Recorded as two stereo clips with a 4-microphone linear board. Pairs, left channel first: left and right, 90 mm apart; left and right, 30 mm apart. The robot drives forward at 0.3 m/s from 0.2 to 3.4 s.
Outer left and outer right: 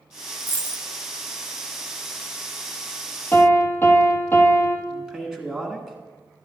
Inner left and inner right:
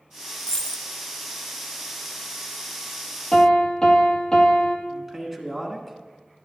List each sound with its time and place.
0.4 s a dropped coin: 20° left (ahead or behind), 0.8 m
3.3 s a piano: 25° left (ahead or behind), 1.4 m
4.9 s a man speaking: 5° right (ahead or behind), 1.7 m